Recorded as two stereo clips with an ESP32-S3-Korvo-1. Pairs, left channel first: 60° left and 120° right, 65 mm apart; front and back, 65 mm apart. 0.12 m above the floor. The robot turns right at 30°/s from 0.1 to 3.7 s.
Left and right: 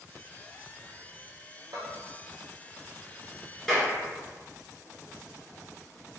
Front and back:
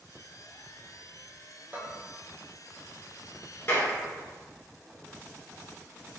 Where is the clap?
30° right, 1.4 m.